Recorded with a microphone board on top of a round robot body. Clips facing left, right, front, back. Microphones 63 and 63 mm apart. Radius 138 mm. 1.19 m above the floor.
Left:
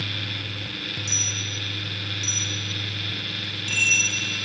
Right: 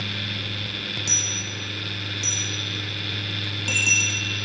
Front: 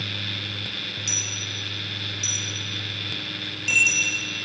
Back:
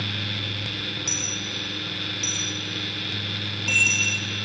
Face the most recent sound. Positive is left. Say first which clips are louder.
# right 1 dB, back 2 dB
turn(degrees=-120)